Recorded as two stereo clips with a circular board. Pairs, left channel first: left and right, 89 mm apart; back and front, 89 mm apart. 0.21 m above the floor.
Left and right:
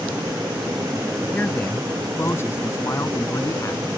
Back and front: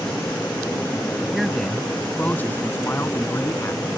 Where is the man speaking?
80° left; by 3.9 s 135° left.